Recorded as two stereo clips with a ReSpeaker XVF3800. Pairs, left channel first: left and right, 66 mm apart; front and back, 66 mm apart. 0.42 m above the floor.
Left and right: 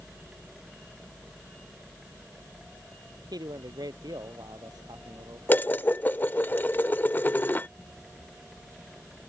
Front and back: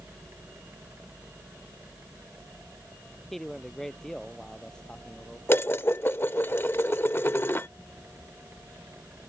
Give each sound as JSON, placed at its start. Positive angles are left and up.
{"t": 3.3, "sound": "a man speaking", "azimuth_deg": -85}
{"t": 5.5, "sound": "dishes clattering", "azimuth_deg": 40}